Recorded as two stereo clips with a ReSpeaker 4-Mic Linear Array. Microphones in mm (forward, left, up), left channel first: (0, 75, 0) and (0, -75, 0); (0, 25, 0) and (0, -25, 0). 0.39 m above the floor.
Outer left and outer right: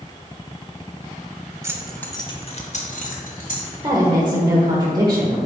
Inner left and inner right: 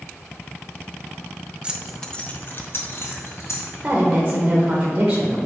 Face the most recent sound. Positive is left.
turn(degrees=-30)  # may be behind; listen again after turning